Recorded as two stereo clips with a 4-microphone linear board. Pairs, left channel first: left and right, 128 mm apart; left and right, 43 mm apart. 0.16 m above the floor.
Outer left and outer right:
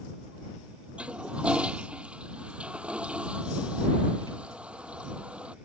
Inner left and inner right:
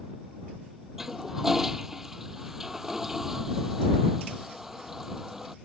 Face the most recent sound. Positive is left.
turn(degrees=-10)  # may be behind; listen again after turning